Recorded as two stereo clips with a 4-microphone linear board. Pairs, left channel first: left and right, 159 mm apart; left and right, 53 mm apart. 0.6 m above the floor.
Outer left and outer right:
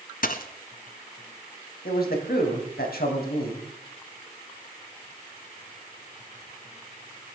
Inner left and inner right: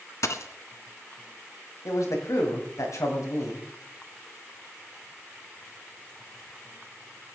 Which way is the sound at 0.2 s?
65° left (ahead or behind).